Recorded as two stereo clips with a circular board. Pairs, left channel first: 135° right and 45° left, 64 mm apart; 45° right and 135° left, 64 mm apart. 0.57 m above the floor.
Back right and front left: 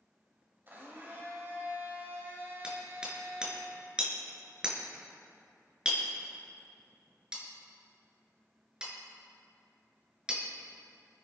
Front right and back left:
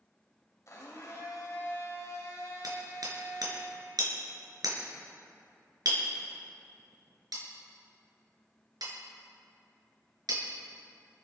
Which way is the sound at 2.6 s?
125° left.